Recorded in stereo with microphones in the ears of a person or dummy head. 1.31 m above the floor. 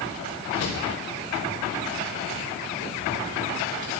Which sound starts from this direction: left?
A drawer, at 0.6 s.